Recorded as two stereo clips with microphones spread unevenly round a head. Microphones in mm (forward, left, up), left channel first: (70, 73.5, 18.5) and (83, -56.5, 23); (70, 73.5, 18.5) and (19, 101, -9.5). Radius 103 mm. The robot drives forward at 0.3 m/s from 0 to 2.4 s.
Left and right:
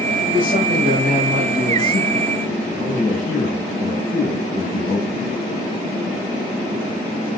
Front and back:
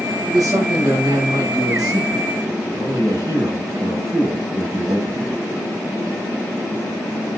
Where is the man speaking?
165° left, 8 m; by 5.4 s 170° left, 8.5 m.